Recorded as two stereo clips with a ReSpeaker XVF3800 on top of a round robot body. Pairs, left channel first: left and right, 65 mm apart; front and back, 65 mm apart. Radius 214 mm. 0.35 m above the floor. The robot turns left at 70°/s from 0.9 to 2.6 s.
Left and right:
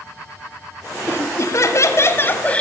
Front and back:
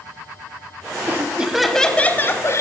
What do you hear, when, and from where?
1.1 s laughter: 130° left, 1.1 m; by 2.6 s 25° left, 1.1 m